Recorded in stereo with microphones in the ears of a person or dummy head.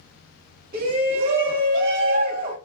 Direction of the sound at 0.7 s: 40° right (ahead or behind).